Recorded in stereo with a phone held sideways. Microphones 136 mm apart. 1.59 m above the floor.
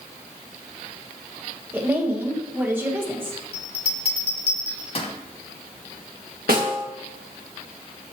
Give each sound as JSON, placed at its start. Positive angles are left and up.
{"t": 1.7, "sound": "a woman speaking", "side_deg": -15, "distance_m": 1.3}
{"t": 3.5, "sound": "a bell", "side_deg": 45, "distance_m": 1.1}
{"t": 6.5, "sound": "a snare drum", "side_deg": -85, "distance_m": 1.5}